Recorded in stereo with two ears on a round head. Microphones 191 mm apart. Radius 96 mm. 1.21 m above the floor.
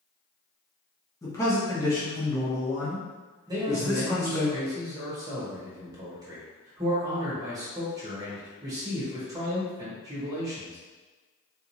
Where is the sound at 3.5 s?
15° right (ahead or behind), 1.3 m.